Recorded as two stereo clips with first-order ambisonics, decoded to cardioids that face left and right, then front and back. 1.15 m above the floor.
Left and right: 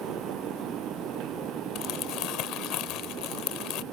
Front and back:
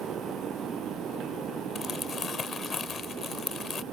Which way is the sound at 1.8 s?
70° left.